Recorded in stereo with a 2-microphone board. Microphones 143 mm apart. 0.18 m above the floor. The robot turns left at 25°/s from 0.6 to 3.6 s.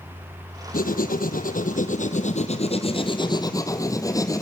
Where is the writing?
95° left, 1.8 m; by 4.4 s 25° left, 1.8 m.